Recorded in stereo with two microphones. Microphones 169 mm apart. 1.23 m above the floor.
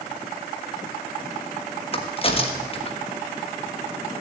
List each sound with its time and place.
1.9 s a crack: 35° left (ahead or behind), 1.4 m